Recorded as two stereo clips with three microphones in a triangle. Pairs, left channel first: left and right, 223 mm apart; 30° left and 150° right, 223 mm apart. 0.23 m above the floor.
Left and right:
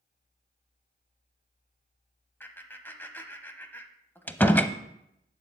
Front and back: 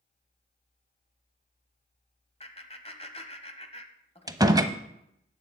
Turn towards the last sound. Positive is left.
turn(degrees=165)